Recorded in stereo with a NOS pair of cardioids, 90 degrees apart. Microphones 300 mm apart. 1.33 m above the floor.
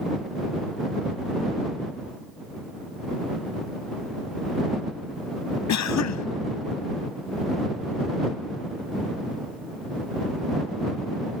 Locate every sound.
5.7 s a cough: 65° left